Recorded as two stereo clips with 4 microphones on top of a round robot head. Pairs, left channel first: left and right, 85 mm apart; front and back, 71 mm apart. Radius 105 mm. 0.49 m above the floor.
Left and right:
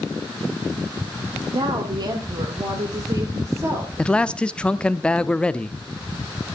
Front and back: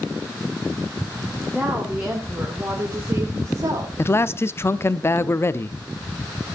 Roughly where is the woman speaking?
Right.